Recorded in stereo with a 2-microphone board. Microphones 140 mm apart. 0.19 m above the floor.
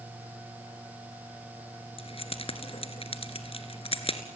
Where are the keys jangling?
40° left (ahead or behind), 1.7 m.